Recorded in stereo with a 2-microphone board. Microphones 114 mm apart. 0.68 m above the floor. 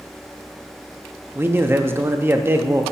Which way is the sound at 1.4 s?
20° right (ahead or behind).